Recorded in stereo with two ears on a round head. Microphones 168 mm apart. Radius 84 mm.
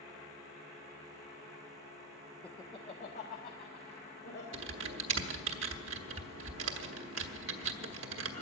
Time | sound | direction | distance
2.4 | laughter | 5° left (ahead or behind) | 0.6 m
4.5 | typing on a keyboard | 75° right (ahead or behind) | 1.2 m